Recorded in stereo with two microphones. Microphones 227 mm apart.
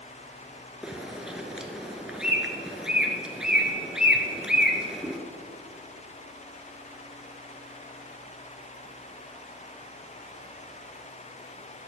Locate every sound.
0.8 s a bird: 5° right (ahead or behind), 0.6 m